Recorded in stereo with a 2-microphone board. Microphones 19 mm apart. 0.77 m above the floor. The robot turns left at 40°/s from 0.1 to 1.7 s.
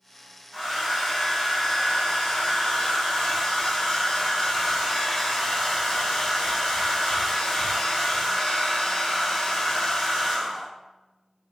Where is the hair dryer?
Straight behind, 1.3 m; by 10.7 s 135° left, 1.3 m.